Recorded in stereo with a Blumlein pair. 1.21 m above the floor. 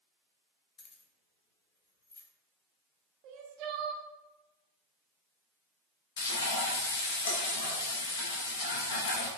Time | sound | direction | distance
0.8 | keys jangling | 25° left | 0.7 m
3.2 | crying | 40° right | 0.6 m
6.2 | frying | 55° left | 0.9 m